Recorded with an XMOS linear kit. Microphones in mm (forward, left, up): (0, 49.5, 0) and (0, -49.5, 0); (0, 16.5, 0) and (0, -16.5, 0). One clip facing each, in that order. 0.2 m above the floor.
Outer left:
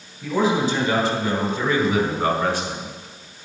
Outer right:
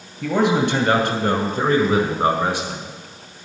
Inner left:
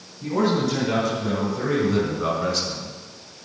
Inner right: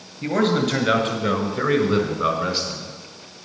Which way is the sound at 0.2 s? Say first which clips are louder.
Outer right 2 dB, inner right 2 dB; 65° right (ahead or behind).